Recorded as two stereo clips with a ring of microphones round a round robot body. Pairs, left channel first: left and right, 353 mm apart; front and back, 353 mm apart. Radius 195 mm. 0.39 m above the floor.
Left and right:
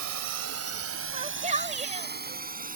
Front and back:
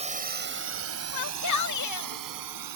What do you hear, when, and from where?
0.0 s a drone: 110° right; by 2.8 s 155° right
1.1 s a shout: 20° right